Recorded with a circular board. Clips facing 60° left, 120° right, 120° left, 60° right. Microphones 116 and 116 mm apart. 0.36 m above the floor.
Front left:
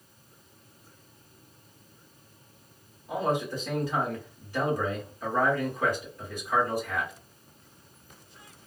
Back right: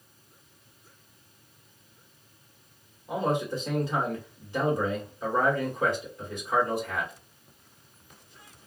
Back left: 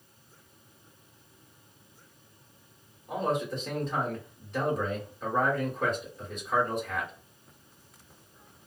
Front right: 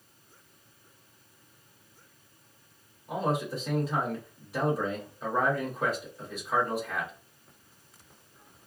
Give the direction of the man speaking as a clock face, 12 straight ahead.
5 o'clock.